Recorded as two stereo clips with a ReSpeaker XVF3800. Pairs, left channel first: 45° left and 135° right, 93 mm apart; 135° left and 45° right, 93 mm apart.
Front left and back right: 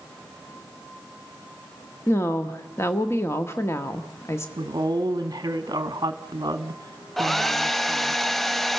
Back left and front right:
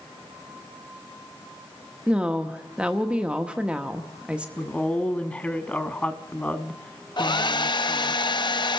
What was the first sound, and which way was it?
A woman speaking, 25° left.